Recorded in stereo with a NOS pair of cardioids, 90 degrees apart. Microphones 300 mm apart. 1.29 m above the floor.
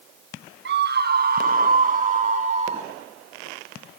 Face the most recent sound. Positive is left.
turn(degrees=-20)